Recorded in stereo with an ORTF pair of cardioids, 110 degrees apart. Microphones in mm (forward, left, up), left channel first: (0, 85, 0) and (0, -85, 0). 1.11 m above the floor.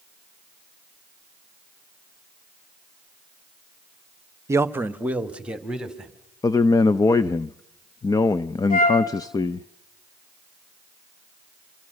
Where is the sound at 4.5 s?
15° right, 1.0 m; by 6.1 s 5° right, 3.5 m.